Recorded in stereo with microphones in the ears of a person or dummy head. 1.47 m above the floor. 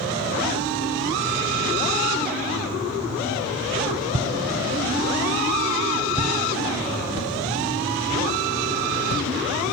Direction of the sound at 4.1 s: 35° right (ahead or behind).